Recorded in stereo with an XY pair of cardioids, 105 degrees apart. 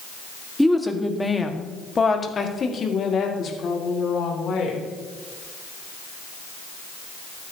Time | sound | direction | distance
0.6 | a woman speaking | straight ahead | 1.7 m